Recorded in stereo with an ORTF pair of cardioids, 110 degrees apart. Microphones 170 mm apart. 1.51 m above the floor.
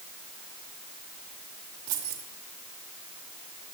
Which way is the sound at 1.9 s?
65° right.